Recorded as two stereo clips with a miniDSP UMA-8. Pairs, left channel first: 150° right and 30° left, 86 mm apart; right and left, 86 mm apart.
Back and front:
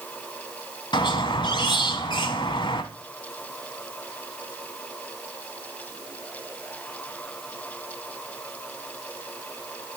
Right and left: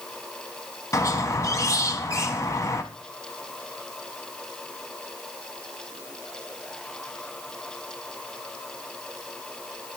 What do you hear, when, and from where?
0.9 s a squeak: 135° right, 0.8 m